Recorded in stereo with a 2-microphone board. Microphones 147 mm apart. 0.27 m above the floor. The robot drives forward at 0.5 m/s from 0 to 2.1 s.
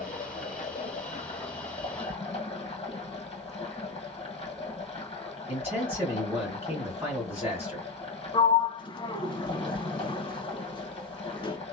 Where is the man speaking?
15° right (ahead or behind), 1.7 m.